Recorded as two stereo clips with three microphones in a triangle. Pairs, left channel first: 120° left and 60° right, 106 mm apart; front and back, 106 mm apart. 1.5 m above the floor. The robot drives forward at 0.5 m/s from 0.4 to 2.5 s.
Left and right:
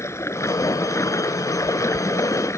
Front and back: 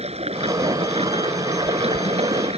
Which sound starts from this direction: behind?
Running water, at 0.0 s.